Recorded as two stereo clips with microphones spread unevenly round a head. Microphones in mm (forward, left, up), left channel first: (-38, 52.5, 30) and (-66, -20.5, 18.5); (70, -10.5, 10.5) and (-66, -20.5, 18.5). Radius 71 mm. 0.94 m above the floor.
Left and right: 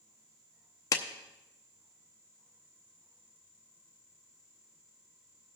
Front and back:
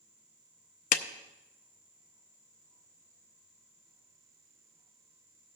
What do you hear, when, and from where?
0.9 s a clap: 10° left, 0.6 m